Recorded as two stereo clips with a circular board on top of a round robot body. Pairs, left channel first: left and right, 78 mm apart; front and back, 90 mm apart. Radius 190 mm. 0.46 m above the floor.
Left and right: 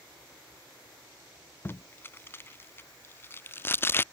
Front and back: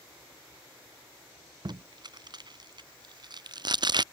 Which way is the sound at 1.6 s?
150° left.